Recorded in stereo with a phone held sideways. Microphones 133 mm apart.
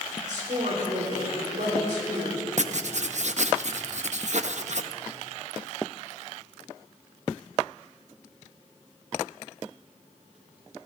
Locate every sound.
0.2 s a woman speaking: 80° right, 4.5 m
2.6 s writing: 60° right (ahead or behind), 0.6 m